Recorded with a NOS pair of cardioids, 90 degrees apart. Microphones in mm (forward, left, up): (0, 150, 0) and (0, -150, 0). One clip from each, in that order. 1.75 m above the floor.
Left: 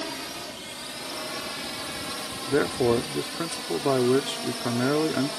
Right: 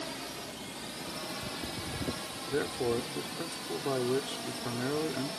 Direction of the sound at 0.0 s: 55° left.